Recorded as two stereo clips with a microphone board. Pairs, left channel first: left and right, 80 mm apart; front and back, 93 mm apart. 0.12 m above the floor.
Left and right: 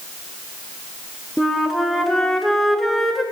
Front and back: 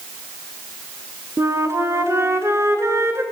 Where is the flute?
175° left, 1.3 m.